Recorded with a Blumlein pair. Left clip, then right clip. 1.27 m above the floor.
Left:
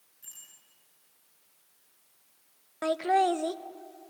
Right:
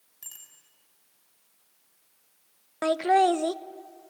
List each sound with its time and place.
0.2 s a bicycle bell: 35° right, 6.5 m
2.8 s laughter: 15° right, 0.6 m